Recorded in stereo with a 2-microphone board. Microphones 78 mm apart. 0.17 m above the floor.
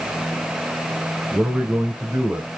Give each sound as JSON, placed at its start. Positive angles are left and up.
{"t": 1.3, "sound": "a man speaking", "side_deg": -20, "distance_m": 1.4}